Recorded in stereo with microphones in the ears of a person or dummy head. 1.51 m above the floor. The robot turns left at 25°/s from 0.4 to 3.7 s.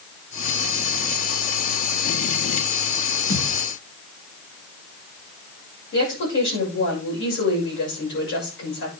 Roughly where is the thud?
Left.